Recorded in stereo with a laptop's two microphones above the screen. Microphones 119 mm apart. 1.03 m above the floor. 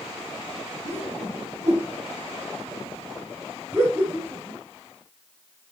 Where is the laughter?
20° right (ahead or behind), 3.5 m.